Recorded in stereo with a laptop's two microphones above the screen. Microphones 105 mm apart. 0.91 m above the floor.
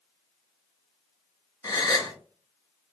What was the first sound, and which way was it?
A gasp, 35° left (ahead or behind).